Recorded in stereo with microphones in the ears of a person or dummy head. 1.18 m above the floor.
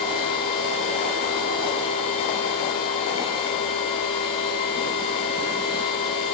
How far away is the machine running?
About 2 m.